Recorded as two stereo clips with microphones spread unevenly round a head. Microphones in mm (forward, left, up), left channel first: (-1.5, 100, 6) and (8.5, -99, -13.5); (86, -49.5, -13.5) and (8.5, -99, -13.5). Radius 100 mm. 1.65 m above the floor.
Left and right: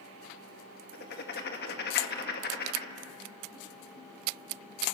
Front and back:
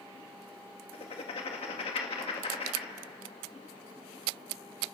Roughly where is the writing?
Ahead left.